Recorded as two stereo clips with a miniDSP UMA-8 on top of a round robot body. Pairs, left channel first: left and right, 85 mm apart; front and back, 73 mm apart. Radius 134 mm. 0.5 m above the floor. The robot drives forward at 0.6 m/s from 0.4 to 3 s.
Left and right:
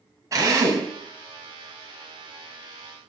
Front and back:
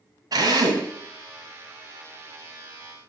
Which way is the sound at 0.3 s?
145° right.